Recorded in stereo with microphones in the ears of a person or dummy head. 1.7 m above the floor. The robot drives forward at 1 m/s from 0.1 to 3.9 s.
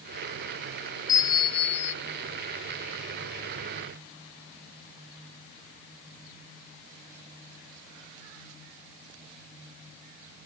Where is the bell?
25° left (ahead or behind); by 1.9 s 50° left (ahead or behind).